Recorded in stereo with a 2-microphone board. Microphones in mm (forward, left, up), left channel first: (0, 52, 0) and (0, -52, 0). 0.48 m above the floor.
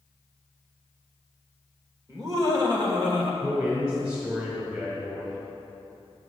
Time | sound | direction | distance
2.1 | laughter | 30° right (ahead or behind) | 2.0 m
3.4 | a man speaking | 30° right (ahead or behind) | 3 m